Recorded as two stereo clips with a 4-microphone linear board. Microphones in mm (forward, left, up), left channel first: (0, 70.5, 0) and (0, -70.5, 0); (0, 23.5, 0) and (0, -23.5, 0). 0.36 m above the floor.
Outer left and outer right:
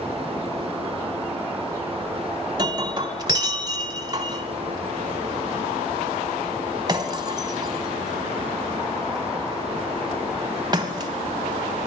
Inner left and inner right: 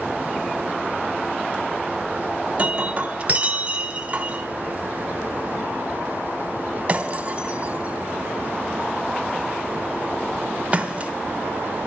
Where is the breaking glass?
30° right (ahead or behind), 1.5 m.